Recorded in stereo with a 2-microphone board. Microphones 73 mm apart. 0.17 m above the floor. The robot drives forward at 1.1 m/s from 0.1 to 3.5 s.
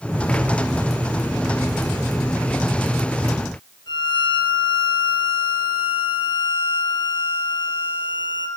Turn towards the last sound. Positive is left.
turn(degrees=75)  # may be behind; listen again after turning